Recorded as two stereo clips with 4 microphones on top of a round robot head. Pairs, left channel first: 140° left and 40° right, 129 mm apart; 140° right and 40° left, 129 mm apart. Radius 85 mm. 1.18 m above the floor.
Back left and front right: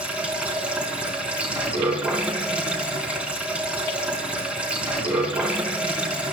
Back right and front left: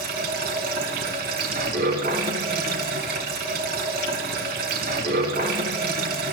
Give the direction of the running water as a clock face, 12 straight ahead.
11 o'clock.